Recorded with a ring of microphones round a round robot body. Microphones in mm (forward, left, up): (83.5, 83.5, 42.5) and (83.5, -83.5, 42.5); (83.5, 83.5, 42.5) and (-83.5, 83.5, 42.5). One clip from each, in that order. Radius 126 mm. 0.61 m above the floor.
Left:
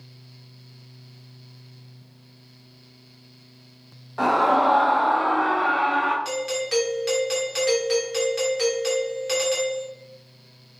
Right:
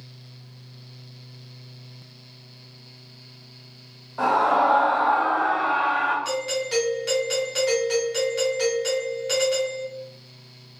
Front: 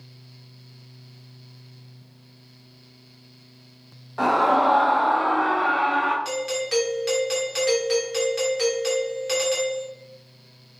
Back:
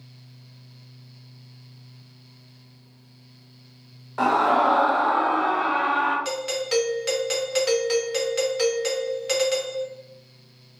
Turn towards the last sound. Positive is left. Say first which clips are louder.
# even, even
turn(degrees=145)